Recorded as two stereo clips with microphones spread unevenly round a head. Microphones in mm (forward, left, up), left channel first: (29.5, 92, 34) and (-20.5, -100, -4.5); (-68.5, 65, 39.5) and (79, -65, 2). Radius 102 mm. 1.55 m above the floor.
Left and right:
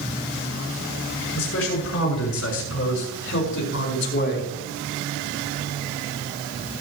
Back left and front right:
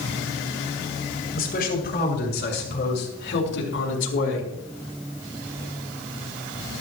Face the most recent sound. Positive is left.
turn(degrees=115)